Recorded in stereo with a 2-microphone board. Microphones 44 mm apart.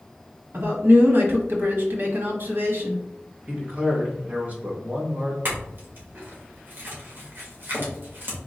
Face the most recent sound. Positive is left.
turn(degrees=-55)  # may be behind; listen again after turning